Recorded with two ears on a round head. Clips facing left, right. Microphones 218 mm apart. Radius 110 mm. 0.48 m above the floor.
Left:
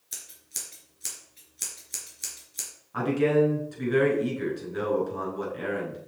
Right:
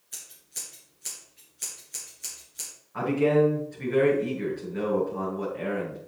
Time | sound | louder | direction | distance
0.1 | scissors | left 1 dB | 60° left (ahead or behind) | 3.5 m
2.9 | a man speaking | even | 65° left (ahead or behind) | 5 m